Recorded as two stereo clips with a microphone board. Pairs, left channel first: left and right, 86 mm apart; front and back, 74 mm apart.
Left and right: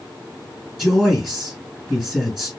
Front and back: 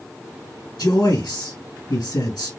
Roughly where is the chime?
I don't hear a chime.